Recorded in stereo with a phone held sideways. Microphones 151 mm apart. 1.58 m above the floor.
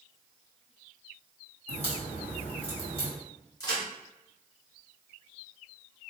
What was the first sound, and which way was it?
A crack, 40° left (ahead or behind).